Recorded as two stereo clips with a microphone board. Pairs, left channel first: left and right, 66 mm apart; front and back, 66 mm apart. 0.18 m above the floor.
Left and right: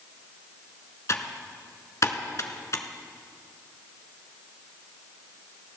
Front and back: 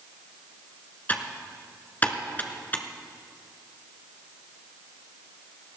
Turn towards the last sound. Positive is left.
turn(degrees=60)